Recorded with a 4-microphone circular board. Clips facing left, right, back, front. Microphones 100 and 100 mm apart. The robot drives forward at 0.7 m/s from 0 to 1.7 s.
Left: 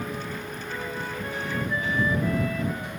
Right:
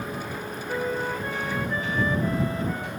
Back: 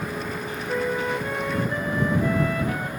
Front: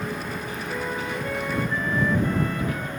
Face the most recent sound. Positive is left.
turn(degrees=-155)